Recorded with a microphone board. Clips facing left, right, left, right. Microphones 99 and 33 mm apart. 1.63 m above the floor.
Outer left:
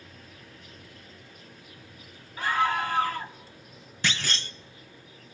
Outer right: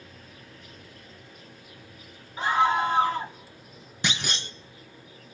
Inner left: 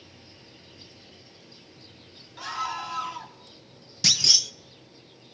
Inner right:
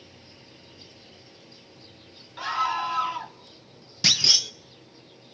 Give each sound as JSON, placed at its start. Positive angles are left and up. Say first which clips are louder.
{"t": 2.4, "sound": "a scream", "louder": "outer right 3 dB, inner right 5 dB", "side_deg": -20, "distance_m": 1.7}
{"t": 4.0, "sound": "a clunk", "louder": "even, inner right 2 dB", "side_deg": -20, "distance_m": 0.8}